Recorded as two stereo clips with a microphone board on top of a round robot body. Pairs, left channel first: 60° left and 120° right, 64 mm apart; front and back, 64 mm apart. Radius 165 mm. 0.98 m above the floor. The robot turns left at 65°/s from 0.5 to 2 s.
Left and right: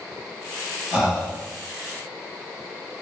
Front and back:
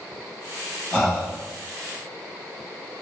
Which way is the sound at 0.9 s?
60° left.